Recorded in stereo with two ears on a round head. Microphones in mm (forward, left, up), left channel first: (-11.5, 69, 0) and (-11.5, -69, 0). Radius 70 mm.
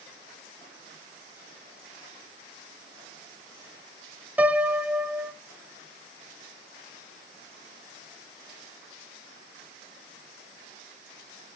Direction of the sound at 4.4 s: 10° right (ahead or behind).